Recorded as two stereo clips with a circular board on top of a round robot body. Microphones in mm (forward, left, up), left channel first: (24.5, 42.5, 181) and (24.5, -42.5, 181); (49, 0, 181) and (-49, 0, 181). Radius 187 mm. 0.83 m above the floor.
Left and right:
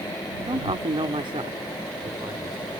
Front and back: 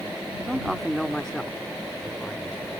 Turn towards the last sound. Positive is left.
turn(degrees=-75)